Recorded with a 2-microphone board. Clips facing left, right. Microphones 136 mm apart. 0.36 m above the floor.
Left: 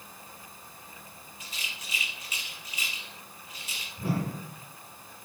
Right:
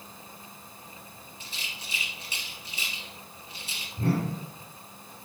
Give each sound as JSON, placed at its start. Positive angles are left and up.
{"t": 1.4, "sound": "a rattle", "side_deg": -30, "distance_m": 2.5}
{"t": 4.0, "sound": "a whoosh", "side_deg": -70, "distance_m": 3.0}